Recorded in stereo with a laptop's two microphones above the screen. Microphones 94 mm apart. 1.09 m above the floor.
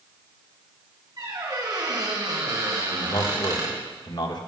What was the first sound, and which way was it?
A squeak, 50° right (ahead or behind).